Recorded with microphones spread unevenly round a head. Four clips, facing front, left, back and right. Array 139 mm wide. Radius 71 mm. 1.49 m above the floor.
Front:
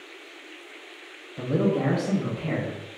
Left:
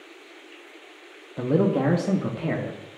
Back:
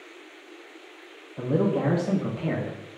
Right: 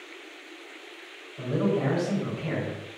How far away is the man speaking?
About 0.9 m.